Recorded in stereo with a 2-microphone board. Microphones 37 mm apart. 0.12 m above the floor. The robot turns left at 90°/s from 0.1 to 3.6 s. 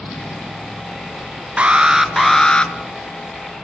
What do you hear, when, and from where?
1.6 s an alarm: 125° right, 1.1 m; by 2.7 s 130° left, 1.1 m